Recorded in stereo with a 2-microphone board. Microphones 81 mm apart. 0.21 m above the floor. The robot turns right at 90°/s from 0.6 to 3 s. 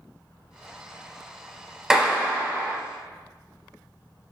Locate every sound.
1.9 s a clap: 5° right (ahead or behind), 0.8 m; by 2.8 s 30° right (ahead or behind), 0.8 m